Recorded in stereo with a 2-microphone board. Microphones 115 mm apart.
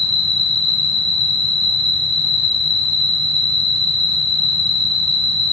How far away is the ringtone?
No ringtone in this recording.